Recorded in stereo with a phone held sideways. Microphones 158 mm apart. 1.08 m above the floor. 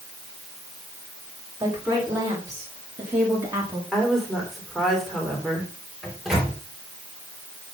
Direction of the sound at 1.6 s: 20° right (ahead or behind).